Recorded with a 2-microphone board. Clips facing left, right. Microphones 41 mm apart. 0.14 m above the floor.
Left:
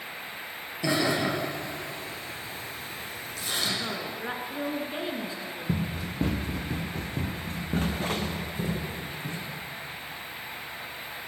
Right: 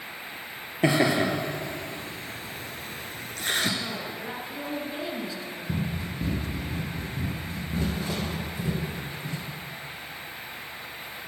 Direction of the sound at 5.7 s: 85° left.